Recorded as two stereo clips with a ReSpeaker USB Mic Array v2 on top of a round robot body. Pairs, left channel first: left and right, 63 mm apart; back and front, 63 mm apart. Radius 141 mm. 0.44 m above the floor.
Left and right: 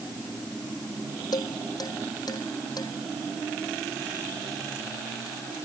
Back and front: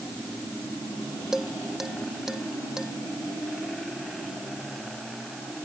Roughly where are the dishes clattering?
Left.